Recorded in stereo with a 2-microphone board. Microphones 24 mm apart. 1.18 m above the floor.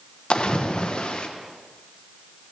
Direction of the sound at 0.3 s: 45° left (ahead or behind).